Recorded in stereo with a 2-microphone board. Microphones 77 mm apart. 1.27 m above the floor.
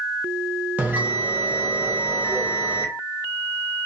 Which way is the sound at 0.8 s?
20° right (ahead or behind).